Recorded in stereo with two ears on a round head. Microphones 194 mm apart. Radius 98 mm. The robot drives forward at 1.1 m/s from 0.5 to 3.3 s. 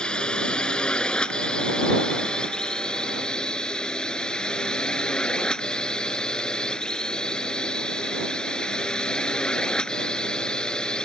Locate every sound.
0.0 s a drone: 5° left (ahead or behind)